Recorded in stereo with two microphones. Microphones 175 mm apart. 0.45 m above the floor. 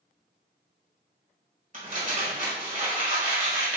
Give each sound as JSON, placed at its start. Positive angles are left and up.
{"t": 1.7, "sound": "crumpling", "side_deg": -50, "distance_m": 1.6}